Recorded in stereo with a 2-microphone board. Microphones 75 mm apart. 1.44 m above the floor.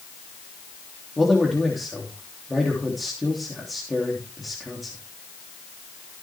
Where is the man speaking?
Centre (ahead or behind), 3 m.